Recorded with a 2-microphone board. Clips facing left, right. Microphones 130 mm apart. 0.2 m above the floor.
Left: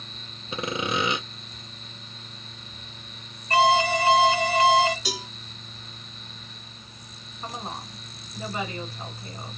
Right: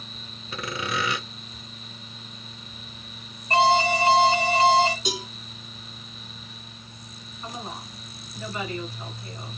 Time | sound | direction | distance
0.5 | sawing | 25° left (ahead or behind) | 0.6 m
3.5 | an alarm | 30° right (ahead or behind) | 1.8 m
5.0 | a cowbell | 25° right (ahead or behind) | 1.8 m
7.4 | a woman speaking | 35° left (ahead or behind) | 2.5 m